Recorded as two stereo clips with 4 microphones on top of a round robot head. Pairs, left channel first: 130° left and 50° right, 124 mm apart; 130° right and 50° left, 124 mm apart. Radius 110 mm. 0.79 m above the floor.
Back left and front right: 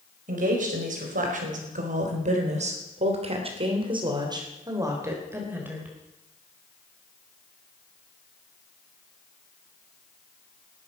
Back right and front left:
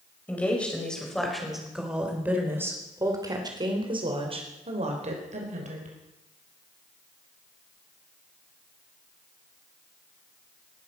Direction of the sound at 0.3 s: 50° right.